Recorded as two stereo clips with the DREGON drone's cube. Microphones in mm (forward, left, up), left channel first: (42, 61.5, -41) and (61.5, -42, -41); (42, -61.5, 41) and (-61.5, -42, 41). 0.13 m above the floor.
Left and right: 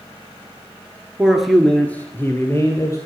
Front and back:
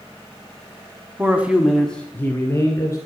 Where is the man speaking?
150° right, 1.4 m; by 3.0 s 45° left, 2.5 m.